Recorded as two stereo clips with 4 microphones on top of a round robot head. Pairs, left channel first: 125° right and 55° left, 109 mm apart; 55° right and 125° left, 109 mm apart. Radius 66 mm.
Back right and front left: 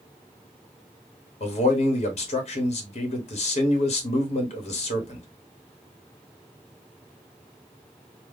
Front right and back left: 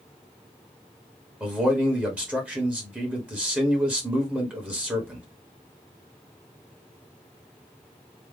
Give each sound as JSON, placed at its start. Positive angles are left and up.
{"t": 1.4, "sound": "a man speaking", "azimuth_deg": -155, "distance_m": 1.5}